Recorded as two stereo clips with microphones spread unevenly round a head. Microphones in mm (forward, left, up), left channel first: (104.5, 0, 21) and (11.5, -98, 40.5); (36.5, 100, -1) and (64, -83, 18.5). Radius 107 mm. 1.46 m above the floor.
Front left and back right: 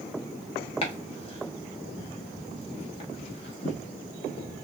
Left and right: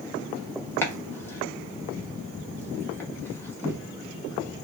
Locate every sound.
0.8 s chopping: 20° left, 0.9 m